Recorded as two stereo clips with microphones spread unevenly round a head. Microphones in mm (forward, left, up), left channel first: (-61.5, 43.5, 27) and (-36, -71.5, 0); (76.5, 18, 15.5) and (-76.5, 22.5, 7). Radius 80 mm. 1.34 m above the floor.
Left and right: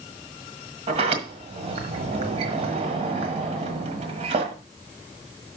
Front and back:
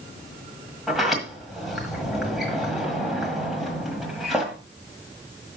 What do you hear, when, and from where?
0.9 s a sliding door: 90° right, 1.4 m